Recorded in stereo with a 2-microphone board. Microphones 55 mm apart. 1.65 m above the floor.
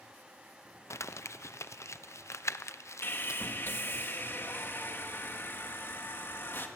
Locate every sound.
0.9 s crumpling: 60° left (ahead or behind), 0.6 m
3.0 s sawing: 40° left (ahead or behind), 1.7 m